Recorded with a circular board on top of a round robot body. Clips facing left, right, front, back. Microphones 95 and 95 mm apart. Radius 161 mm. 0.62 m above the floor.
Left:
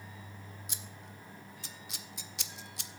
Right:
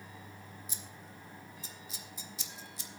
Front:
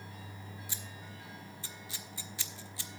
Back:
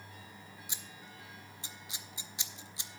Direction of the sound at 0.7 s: 110° left.